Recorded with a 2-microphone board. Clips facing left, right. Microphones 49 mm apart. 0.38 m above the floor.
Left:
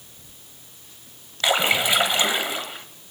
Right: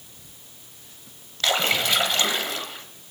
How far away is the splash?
About 1.2 m.